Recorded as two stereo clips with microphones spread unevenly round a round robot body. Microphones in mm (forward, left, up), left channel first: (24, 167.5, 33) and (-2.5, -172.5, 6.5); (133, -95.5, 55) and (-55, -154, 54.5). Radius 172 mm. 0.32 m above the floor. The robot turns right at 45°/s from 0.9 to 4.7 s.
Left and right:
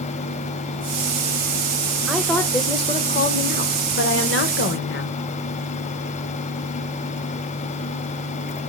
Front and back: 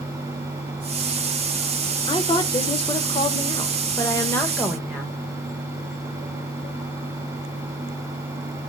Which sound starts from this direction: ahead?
A woman speaking, at 2.1 s.